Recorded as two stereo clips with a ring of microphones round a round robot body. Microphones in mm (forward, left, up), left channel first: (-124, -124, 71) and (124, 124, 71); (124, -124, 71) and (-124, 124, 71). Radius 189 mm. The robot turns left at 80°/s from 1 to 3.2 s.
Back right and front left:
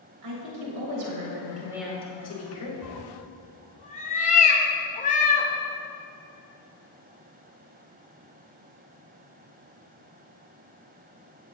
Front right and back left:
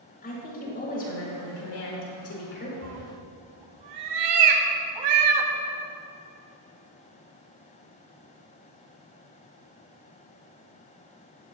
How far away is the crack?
I don't hear a crack.